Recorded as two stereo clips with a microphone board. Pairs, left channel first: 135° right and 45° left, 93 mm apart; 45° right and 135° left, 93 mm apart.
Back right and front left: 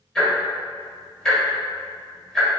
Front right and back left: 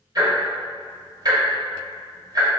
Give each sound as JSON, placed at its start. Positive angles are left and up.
{"t": 0.1, "sound": "ticking", "azimuth_deg": 140, "distance_m": 1.4}